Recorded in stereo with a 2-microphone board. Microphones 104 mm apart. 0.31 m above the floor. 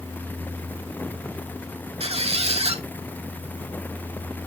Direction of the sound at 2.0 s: 75° right (ahead or behind).